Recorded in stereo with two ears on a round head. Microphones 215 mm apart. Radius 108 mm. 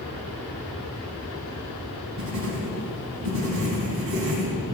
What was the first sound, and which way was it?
Writing, 60° right (ahead or behind).